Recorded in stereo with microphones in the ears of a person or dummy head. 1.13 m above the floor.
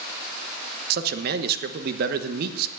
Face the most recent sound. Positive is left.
turn(degrees=-55)  # may be behind; listen again after turning